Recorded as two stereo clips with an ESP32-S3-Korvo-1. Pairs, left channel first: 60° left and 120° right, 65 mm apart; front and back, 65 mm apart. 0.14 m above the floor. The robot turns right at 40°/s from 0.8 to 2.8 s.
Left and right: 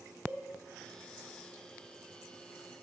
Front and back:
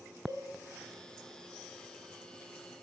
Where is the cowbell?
175° left, 3 m.